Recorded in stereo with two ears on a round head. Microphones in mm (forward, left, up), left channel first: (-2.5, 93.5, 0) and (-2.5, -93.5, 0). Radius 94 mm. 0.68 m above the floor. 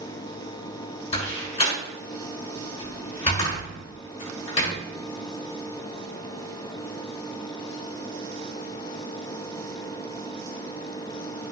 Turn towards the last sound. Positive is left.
turn(degrees=30)  # may be behind; listen again after turning